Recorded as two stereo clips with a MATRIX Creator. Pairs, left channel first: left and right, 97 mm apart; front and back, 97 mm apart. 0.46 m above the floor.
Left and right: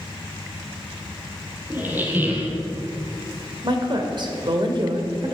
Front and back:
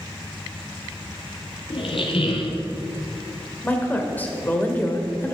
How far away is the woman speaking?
About 1.6 m.